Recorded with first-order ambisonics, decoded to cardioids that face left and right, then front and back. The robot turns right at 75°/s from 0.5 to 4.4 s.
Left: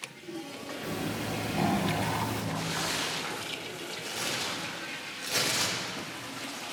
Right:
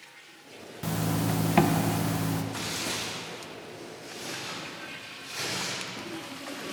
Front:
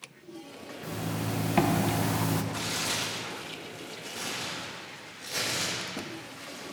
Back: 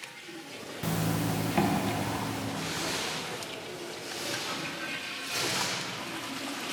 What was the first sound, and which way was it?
A zipper, 135° right.